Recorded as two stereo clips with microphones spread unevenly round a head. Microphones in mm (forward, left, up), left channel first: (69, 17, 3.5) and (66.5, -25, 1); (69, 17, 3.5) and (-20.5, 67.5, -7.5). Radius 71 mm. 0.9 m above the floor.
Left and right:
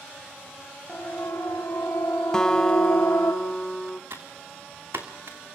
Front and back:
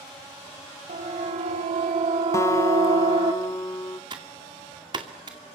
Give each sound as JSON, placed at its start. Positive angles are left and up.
{"t": 0.9, "sound": "a siren", "azimuth_deg": 150, "distance_m": 4.5}
{"t": 2.3, "sound": "a guitar", "azimuth_deg": 20, "distance_m": 0.7}
{"t": 4.1, "sound": "typing on a keyboard", "azimuth_deg": -150, "distance_m": 2.0}